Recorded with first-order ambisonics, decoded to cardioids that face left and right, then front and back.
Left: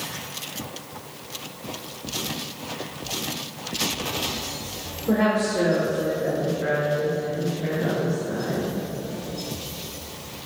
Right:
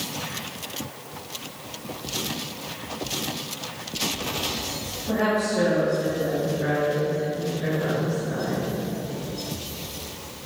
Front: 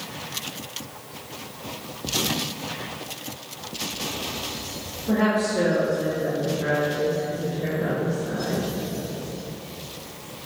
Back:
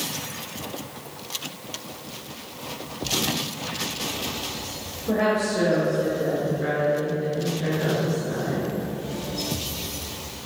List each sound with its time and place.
5.1 s a woman speaking: 105° left, 1.1 m; by 8.7 s 140° right, 2 m